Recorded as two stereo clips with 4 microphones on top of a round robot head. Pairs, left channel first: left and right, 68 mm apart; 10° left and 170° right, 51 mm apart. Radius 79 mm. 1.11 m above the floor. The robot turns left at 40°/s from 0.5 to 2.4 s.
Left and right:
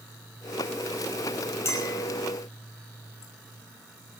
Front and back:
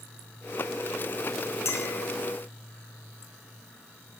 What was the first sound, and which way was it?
A clink, 40° left.